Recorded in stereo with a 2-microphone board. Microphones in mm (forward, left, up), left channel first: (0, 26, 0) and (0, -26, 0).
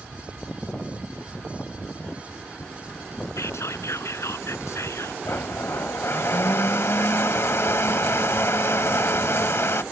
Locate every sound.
3.4 s whispering: 70° left (ahead or behind)
5.2 s a blender: 55° left (ahead or behind)